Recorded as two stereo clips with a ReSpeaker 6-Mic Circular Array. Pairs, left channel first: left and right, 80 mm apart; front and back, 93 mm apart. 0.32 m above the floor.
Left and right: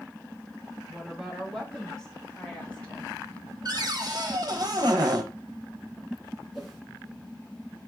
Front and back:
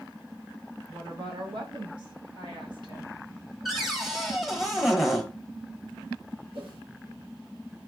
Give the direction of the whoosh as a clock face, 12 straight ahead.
6 o'clock.